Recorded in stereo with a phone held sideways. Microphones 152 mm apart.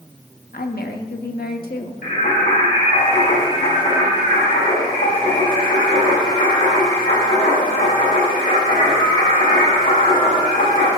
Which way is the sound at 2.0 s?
80° left.